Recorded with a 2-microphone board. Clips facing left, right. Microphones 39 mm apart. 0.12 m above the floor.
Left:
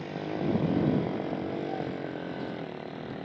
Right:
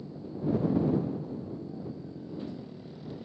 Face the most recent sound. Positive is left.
turn(degrees=50)  # may be behind; listen again after turning